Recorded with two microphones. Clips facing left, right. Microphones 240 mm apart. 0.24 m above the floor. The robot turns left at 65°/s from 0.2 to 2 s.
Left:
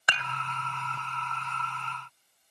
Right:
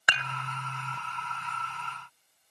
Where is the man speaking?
I don't hear a man speaking.